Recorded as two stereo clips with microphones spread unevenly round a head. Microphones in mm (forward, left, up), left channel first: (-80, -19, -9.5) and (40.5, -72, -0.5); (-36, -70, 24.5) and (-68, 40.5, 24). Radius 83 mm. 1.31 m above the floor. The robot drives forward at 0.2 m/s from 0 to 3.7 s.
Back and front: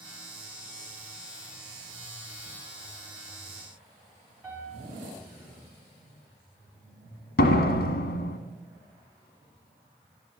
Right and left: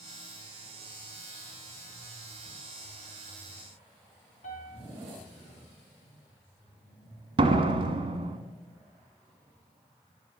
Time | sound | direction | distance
4.4 | a piano | 100° right | 4.5 m
7.4 | a door slam | 150° left | 1.4 m